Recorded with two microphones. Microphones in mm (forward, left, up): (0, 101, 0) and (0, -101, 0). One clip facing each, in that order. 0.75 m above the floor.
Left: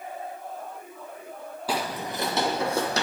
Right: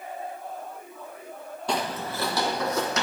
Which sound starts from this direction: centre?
Footsteps, at 1.7 s.